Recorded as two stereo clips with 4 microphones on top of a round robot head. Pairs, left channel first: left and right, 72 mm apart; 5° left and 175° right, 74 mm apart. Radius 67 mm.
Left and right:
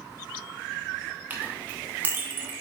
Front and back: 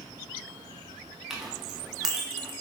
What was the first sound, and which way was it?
A clink, 100° right.